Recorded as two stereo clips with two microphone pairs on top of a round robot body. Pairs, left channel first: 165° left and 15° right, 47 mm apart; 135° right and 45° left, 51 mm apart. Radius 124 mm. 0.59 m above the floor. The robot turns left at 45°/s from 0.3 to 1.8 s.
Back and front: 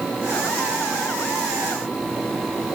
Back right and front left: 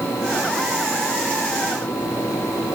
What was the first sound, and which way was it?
Only background noise.